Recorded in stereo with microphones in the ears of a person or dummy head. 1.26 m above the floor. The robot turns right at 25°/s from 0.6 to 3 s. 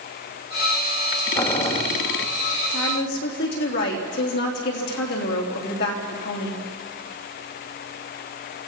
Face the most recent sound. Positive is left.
turn(degrees=55)  # may be behind; listen again after turning